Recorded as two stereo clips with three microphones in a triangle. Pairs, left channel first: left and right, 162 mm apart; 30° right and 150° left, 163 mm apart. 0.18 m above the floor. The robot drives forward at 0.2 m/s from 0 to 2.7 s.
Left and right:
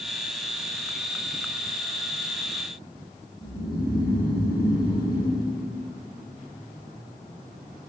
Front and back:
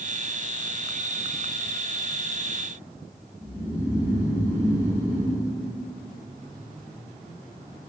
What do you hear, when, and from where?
3.4 s snoring: 95° left, 1.0 m